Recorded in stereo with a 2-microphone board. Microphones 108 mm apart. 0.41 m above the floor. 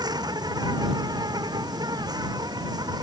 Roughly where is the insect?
Right.